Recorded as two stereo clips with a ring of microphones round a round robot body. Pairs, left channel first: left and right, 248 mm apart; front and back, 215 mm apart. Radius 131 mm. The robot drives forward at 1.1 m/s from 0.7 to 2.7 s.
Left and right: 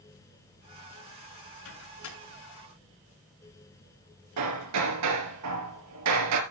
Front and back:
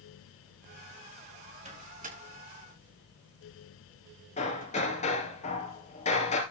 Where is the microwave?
125° left, 7.5 m; by 4.9 s 130° left, 8 m.